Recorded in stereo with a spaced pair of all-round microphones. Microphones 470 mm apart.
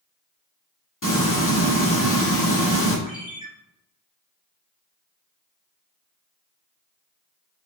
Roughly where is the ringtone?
Centre.